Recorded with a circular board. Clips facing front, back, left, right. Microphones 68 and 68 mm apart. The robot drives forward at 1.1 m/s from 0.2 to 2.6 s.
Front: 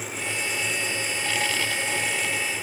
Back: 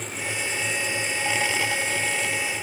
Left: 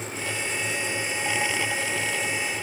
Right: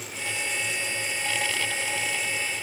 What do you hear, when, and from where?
Only background noise.